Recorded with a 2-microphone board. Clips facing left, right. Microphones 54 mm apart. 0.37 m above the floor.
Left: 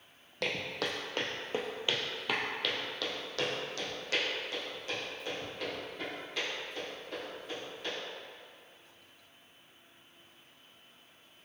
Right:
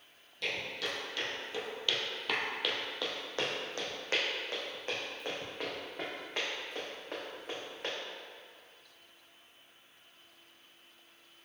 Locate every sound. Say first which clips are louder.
0.4 s footsteps: left 2 dB; 70° left (ahead or behind), 0.9 m; by 7.9 s 50° right (ahead or behind), 3 m